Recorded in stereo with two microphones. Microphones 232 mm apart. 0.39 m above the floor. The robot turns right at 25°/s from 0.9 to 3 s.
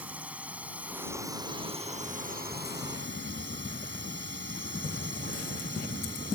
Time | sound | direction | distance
0.0 | a drone | 175° right | ?